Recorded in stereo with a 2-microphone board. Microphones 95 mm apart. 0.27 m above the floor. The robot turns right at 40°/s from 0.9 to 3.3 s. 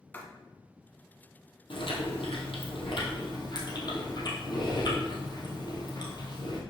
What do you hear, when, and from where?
0.1 s writing: 20° left (ahead or behind), 1.1 m
1.7 s chewing: 65° left, 2.0 m; by 6.6 s 125° left, 2.0 m